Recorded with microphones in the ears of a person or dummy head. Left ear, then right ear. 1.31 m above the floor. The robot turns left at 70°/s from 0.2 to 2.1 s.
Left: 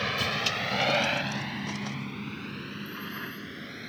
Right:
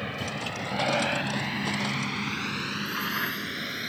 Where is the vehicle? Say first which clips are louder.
Left 5 dB; 35° left (ahead or behind); by 3.9 s 30° right (ahead or behind).